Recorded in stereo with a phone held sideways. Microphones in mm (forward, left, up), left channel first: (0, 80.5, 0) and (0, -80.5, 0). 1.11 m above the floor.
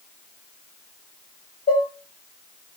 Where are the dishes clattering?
75° left (ahead or behind), 0.6 m.